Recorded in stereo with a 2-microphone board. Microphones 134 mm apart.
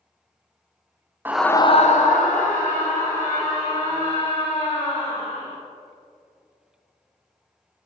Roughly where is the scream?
Centre.